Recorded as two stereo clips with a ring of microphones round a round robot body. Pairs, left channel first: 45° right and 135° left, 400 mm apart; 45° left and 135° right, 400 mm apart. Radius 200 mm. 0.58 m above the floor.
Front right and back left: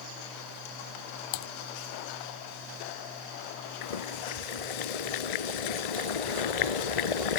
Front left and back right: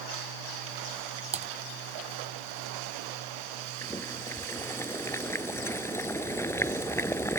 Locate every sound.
1.3 s typing on a keyboard: 60° right
3.8 s boiling: 40° right